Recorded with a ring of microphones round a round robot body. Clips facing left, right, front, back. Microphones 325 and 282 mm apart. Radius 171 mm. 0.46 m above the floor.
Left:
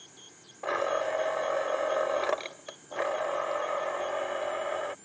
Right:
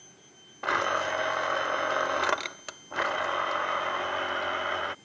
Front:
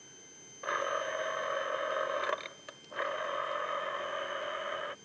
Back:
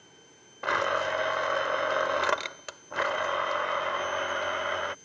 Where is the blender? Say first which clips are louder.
Left 2 dB, back 6 dB; 150° right.